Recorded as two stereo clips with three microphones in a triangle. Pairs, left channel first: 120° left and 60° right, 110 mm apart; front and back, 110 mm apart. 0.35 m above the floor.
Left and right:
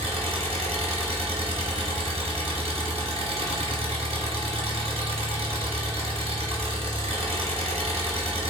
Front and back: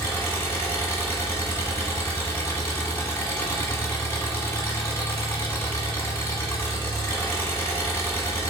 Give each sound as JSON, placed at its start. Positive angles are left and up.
{"t": 0.0, "sound": "an engine running", "azimuth_deg": -65, "distance_m": 1.2}